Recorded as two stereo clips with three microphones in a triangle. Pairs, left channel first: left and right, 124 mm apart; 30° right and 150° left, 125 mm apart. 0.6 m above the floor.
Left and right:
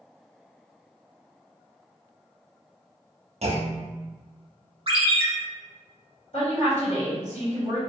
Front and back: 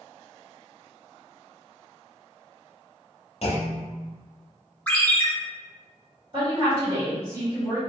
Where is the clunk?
60° right, 0.6 m.